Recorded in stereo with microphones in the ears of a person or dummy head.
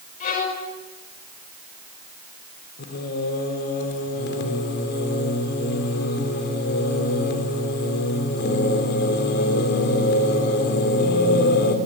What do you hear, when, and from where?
0.2 s a violin: 55° left (ahead or behind), 6.5 m
2.8 s singing: 70° left (ahead or behind), 4 m